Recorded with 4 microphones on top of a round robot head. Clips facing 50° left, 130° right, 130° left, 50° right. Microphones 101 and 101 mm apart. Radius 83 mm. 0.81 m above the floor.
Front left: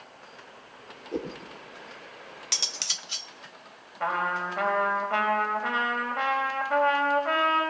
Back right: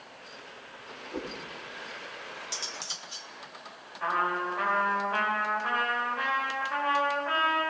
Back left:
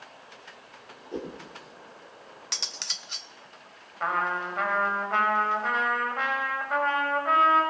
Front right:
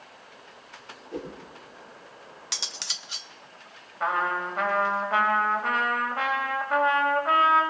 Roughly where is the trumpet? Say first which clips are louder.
Front left 1 dB, front right 1 dB; ahead left.